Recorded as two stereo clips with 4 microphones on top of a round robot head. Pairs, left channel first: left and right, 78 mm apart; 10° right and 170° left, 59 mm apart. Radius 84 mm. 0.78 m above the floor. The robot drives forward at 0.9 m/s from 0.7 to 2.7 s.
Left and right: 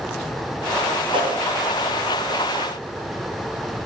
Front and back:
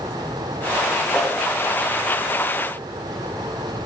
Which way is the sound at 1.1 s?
105° right.